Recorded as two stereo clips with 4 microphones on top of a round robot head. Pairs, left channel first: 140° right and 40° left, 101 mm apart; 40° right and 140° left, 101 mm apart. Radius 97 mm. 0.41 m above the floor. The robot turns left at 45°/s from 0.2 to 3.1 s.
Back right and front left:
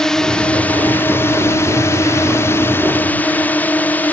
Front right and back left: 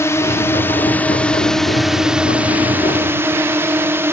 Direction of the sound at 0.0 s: 60° right.